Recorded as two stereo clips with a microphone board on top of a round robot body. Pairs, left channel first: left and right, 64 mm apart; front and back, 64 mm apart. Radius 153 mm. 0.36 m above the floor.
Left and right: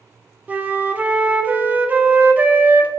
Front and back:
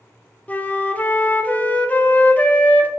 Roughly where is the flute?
Ahead right.